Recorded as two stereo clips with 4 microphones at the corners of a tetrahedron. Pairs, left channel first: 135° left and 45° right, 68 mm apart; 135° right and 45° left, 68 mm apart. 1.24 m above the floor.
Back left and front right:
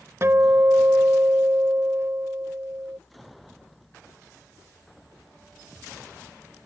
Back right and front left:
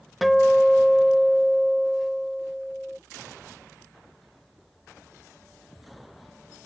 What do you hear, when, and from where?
0.2 s a guitar: 45° right